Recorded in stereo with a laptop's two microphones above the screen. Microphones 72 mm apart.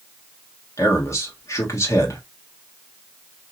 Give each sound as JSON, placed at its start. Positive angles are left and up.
{"t": 0.8, "sound": "a man speaking", "side_deg": 45, "distance_m": 1.2}